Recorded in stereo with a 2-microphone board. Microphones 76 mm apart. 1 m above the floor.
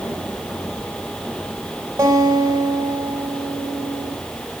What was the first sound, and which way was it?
A guitar, 35° right (ahead or behind).